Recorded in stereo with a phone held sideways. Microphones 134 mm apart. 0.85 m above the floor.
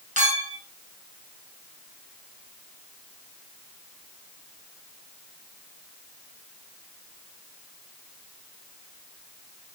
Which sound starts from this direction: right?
A clink, at 0.2 s.